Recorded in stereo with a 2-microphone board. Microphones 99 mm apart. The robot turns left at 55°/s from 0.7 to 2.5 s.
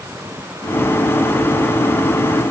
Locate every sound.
Only background noise.